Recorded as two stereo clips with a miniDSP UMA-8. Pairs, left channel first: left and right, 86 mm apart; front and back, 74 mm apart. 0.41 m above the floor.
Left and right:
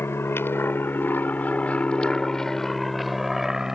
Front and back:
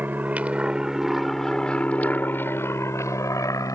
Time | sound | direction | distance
0.0 | an aircraft | 130° left | ?